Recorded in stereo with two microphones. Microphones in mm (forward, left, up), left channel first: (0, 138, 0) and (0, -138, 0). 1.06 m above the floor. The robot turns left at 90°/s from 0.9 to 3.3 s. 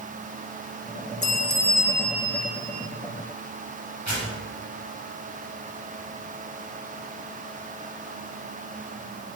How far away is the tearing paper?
About 7.5 m.